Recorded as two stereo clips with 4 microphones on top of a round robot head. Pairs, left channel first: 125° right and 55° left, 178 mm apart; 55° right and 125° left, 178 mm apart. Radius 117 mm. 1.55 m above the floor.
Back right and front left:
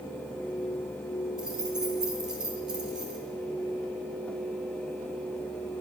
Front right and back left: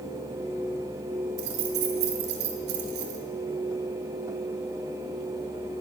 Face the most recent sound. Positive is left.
turn(degrees=145)